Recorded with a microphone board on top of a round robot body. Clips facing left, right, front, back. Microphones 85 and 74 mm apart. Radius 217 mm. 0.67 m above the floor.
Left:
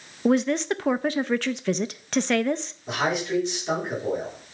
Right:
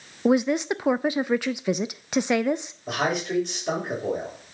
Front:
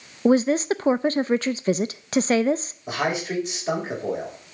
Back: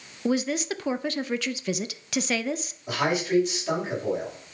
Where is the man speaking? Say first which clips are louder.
Even, back 1 dB; 55° right, 5.5 m.